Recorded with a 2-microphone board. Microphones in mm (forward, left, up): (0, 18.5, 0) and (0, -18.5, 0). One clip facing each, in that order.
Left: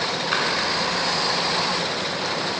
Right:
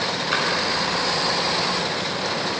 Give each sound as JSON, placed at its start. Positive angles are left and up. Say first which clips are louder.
{"t": 0.3, "sound": "a splash", "louder": "even", "side_deg": 5, "distance_m": 1.2}